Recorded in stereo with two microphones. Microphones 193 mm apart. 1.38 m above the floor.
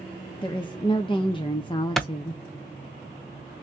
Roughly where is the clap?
Centre.